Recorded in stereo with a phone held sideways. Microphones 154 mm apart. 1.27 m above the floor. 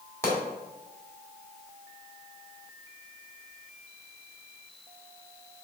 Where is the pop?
15° left (ahead or behind), 1.8 m.